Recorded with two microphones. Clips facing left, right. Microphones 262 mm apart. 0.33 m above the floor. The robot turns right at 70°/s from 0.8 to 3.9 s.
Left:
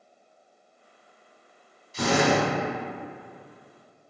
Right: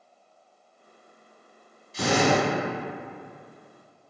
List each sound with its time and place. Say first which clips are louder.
1.9 s a drill: even; 45° left, 1.6 m; by 2.4 s 80° left, 1.6 m